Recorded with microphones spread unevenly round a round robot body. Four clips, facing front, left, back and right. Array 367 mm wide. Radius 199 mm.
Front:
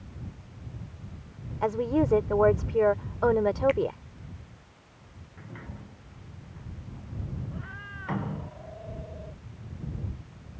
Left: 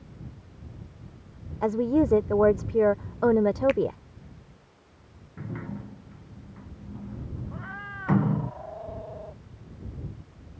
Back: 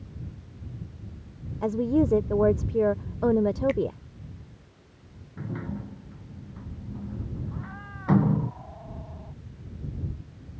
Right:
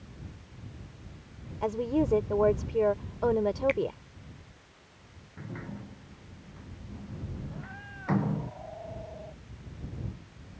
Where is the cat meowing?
110° left.